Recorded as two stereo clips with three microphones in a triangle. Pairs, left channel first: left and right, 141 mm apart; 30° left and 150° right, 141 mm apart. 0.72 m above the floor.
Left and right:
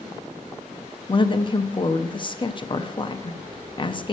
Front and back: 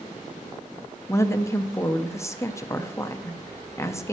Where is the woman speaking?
85° left, 0.5 m.